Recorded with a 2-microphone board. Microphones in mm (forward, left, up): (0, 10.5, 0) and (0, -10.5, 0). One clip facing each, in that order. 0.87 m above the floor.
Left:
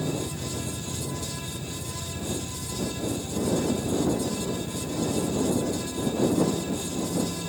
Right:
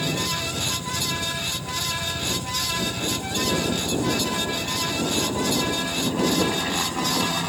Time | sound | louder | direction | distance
0.0 | a helicopter | right 6 dB | 70° right (ahead or behind) | ?